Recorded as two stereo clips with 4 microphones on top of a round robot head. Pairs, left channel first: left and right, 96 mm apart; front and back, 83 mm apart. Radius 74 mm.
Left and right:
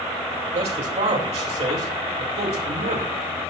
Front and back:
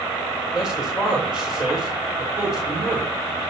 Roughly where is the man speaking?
Right.